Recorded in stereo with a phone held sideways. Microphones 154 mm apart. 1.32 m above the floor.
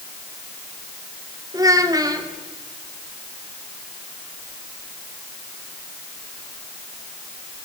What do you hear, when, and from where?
1.5 s a child speaking: 25° right (ahead or behind), 3 m